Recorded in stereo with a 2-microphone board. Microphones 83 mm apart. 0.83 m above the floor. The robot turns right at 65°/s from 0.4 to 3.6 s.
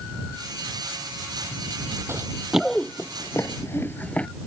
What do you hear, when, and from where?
2.1 s running footsteps: 35° right (ahead or behind); by 4.3 s 15° left (ahead or behind)